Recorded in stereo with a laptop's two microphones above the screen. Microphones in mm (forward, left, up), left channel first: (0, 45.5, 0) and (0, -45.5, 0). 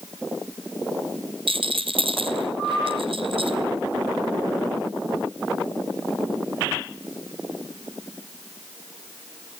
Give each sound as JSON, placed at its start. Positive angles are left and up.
{"t": 1.5, "sound": "a rattle", "side_deg": -80, "distance_m": 2.5}